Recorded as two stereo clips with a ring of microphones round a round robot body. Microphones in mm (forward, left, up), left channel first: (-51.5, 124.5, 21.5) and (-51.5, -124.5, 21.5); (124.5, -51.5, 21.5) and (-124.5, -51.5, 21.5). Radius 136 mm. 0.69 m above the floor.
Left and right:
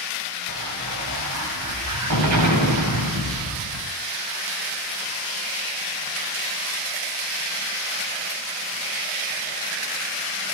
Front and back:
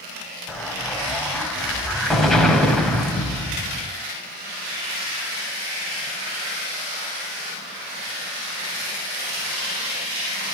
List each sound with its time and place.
0.5 s an explosion: 90° right, 4.5 m